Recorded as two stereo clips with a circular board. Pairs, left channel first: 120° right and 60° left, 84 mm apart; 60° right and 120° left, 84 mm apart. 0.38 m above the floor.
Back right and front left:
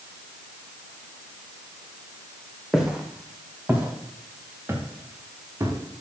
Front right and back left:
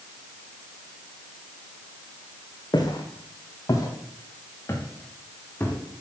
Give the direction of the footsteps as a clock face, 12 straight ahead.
1 o'clock.